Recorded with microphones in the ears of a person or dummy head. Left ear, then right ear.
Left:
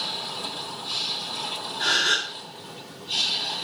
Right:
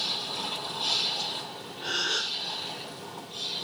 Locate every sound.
1.8 s a gasp: 60° left (ahead or behind), 8 m